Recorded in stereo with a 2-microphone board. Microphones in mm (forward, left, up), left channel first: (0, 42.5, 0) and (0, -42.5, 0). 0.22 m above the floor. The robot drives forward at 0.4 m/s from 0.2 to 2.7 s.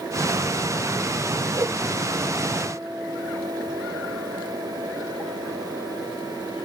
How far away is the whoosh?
About 1.8 m.